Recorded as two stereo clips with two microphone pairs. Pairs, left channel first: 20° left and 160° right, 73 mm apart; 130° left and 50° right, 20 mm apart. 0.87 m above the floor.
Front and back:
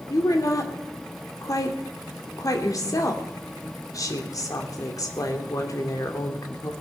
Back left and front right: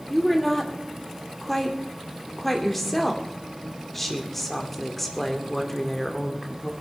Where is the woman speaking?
55° left, 2.5 m.